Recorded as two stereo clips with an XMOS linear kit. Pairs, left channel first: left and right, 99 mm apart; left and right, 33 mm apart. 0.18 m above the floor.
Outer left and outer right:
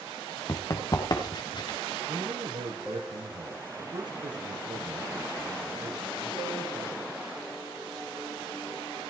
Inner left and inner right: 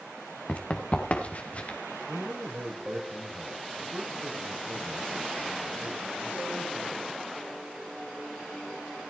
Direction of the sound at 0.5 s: 40° left (ahead or behind).